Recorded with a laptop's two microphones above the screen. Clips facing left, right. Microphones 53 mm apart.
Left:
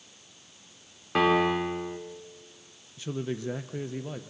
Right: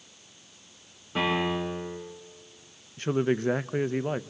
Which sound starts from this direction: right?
A man speaking, at 3.0 s.